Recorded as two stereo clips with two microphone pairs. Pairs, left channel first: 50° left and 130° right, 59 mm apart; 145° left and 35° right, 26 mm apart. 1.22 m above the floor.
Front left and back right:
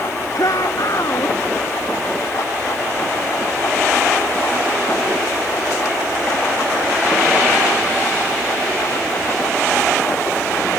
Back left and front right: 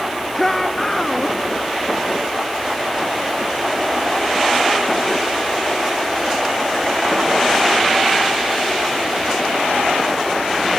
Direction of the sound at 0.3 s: 65° left.